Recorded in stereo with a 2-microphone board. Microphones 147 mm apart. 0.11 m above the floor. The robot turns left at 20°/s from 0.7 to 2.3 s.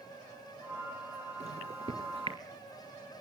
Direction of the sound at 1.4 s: 45° right (ahead or behind).